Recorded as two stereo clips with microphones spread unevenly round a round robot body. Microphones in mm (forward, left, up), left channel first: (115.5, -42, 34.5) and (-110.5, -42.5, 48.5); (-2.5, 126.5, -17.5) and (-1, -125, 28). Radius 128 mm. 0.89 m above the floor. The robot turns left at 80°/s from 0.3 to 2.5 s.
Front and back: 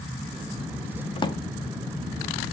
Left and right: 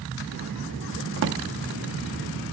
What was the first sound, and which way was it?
A drawer, 65° right.